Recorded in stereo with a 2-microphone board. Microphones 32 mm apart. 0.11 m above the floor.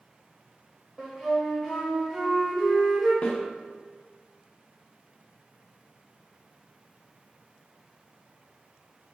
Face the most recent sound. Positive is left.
turn(degrees=40)  # may be behind; listen again after turning